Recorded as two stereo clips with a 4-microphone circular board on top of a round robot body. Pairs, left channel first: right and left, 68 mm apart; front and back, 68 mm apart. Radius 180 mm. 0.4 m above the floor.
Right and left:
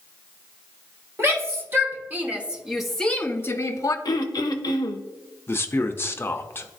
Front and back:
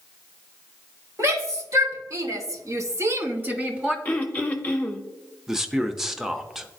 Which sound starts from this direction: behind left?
A shout, at 1.2 s.